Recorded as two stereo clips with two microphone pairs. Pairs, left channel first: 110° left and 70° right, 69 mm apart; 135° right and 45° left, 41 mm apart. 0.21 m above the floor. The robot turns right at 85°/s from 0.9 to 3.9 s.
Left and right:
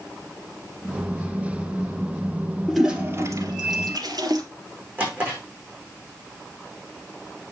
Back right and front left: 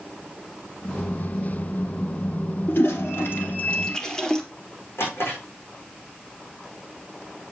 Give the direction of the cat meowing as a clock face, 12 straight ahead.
I don't hear a cat meowing.